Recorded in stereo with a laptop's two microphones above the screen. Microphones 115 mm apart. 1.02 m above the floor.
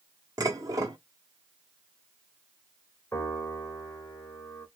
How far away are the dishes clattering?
About 1.4 m.